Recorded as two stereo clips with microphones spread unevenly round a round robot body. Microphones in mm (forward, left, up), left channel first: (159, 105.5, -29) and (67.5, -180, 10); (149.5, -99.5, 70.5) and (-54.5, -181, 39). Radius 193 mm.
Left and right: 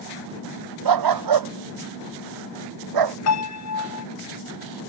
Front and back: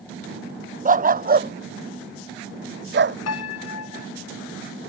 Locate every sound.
0.8 s a dog barking: 105° right; by 3.2 s 120° right
3.3 s a piano: 40° left